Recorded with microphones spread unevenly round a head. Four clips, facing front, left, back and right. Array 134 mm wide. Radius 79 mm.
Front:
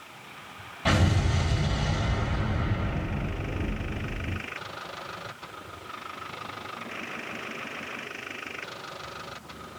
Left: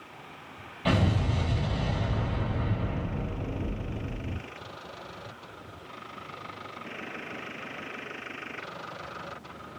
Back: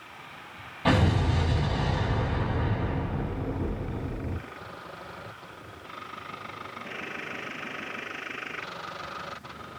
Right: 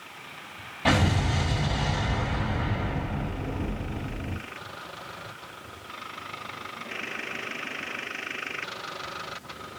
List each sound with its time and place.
0.8 s an explosion: 105° right, 3.5 m